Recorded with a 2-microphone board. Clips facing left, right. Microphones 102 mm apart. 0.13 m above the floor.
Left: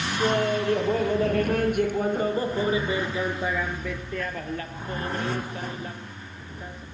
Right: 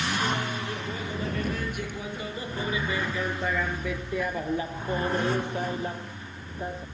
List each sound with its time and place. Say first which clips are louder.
0.2 s laughter: left 7 dB; 65° left (ahead or behind); by 6.8 s 35° right (ahead or behind)